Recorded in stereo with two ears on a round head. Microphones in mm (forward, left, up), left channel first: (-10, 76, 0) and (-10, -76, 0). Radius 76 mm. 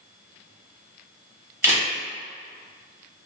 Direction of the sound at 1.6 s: 15° right (ahead or behind).